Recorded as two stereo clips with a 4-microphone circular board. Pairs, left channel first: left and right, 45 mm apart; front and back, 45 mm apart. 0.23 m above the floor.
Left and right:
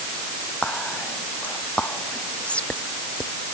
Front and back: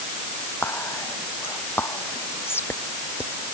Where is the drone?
I don't hear a drone.